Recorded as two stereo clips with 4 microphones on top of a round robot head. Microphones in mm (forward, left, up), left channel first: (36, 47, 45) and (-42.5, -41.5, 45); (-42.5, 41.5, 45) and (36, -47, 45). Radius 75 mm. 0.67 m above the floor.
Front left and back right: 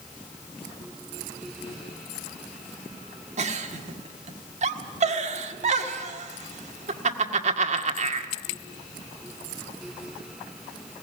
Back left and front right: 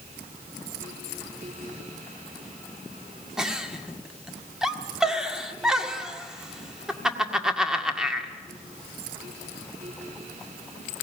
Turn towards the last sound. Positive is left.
turn(degrees=-135)